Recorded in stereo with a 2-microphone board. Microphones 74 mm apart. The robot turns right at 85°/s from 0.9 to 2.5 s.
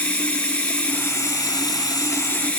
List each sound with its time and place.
0.0 s running water: 20° left, 0.8 m; by 2.6 s 160° left, 0.8 m